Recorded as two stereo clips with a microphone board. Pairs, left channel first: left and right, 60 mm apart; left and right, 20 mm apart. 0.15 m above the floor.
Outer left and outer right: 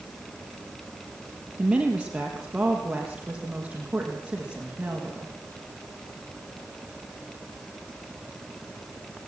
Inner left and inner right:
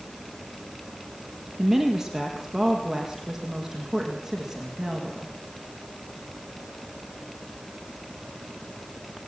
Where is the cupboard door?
No cupboard door in this recording.